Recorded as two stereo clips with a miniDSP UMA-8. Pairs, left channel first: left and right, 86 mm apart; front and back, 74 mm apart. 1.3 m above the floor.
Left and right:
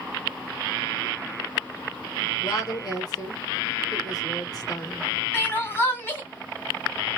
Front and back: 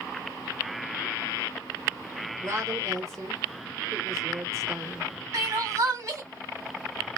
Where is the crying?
145° left, 1.7 m.